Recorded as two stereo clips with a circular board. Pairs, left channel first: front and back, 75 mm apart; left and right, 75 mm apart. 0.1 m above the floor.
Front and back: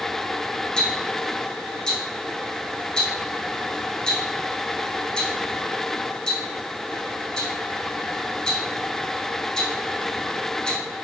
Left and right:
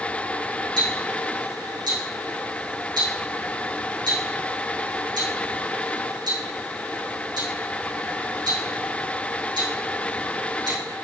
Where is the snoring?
I don't hear snoring.